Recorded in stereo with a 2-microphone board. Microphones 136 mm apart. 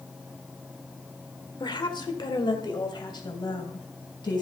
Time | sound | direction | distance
1.6 | a woman speaking | 35° left (ahead or behind) | 1.4 m